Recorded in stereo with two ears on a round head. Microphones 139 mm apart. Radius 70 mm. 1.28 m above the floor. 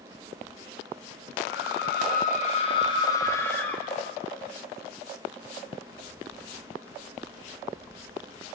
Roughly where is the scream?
Left.